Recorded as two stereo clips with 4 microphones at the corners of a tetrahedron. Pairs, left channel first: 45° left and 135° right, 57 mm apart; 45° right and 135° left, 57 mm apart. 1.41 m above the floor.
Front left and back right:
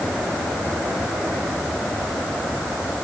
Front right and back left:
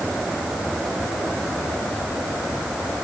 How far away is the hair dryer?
I don't hear a hair dryer.